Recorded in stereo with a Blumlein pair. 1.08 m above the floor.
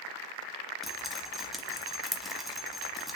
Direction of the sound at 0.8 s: Straight ahead.